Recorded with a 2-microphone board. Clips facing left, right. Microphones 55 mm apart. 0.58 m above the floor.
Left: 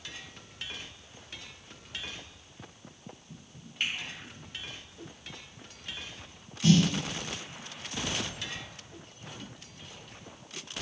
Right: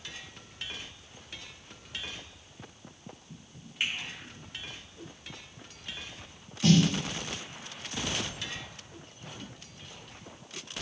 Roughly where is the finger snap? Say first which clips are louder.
Even; centre.